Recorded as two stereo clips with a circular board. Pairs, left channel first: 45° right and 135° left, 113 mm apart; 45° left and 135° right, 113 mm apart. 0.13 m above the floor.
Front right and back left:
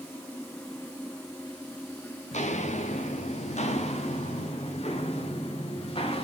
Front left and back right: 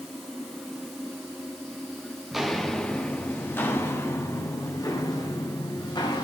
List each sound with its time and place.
2.3 s footsteps: 50° right, 1.4 m; by 6.2 s 5° right, 3 m